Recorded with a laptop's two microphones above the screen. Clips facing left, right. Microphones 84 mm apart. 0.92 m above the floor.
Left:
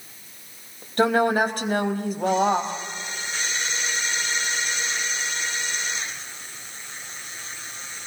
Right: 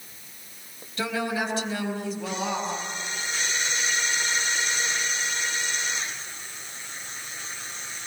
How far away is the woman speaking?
About 4.5 m.